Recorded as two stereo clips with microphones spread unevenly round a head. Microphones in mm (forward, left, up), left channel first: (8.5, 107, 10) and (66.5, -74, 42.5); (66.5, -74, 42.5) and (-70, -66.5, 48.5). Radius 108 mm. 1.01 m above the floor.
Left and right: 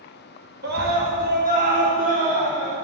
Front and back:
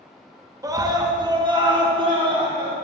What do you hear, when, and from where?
0.6 s a scream: 115° right, 1.7 m; by 2.8 s 130° right, 3.5 m